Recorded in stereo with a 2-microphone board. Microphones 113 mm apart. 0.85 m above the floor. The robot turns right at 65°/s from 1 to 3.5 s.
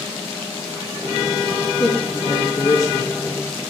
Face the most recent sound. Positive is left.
turn(degrees=180)